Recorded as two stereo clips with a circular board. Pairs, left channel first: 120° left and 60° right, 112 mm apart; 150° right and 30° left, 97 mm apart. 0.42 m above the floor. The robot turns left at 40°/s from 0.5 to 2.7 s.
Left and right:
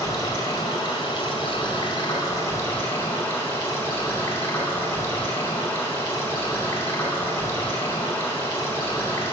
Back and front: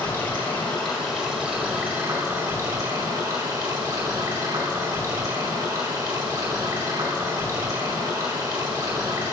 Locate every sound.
0.0 s running water: 145° left, 1.6 m; by 9.3 s 60° left, 1.6 m